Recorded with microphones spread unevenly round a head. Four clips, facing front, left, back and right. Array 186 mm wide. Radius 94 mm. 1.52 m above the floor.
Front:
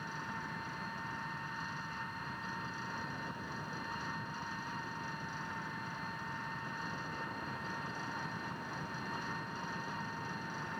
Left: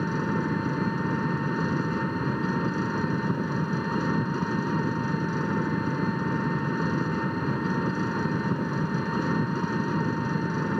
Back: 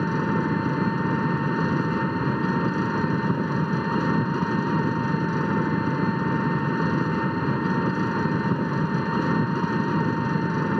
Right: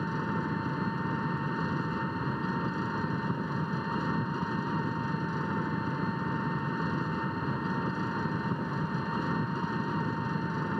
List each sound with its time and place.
0.0 s an engine running: 165° left